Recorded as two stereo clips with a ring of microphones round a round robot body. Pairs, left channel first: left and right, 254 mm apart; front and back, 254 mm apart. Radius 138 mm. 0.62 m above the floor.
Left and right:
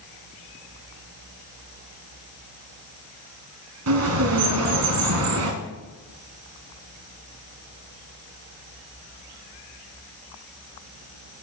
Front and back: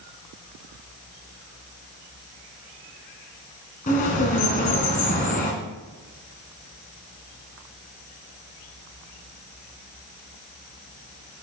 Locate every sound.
3.9 s a bird: 65° right, 1.7 m